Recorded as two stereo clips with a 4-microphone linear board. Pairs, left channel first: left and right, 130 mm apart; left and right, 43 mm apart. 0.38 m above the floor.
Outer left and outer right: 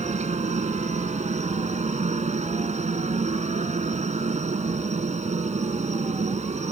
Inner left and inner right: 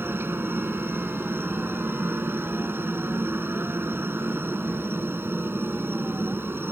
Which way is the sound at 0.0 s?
60° right (ahead or behind).